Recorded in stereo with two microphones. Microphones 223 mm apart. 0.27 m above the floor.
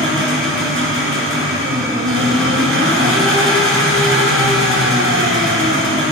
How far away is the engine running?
About 1.9 m.